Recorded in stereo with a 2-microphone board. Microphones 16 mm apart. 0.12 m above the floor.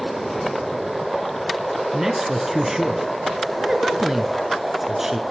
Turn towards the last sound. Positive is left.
turn(degrees=-20)  # may be behind; listen again after turning